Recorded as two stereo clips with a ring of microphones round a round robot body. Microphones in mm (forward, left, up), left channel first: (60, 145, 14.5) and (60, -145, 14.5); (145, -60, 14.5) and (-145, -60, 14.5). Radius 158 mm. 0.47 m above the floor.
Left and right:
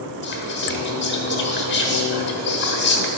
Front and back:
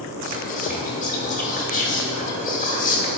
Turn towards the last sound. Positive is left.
turn(degrees=55)